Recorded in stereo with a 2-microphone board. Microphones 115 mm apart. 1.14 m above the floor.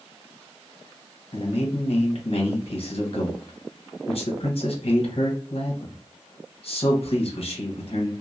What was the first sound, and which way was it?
A man speaking, 55° left (ahead or behind).